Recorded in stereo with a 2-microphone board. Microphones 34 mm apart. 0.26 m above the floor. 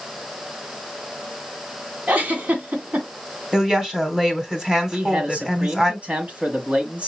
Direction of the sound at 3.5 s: 20° right (ahead or behind).